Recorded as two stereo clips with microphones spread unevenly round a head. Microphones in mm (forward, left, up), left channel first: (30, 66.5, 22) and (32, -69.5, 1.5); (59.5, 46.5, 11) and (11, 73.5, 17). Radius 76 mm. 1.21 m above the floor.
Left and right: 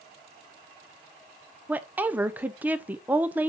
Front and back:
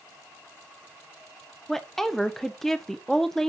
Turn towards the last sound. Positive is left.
turn(degrees=-90)